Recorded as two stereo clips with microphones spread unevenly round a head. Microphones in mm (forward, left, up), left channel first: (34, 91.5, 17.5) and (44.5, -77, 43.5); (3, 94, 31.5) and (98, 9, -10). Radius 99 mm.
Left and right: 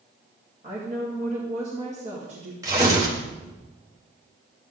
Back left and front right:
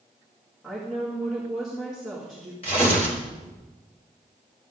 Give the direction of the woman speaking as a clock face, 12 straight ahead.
5 o'clock.